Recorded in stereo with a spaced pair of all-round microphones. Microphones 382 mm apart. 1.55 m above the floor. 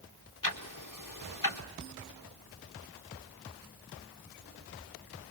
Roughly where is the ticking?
Left.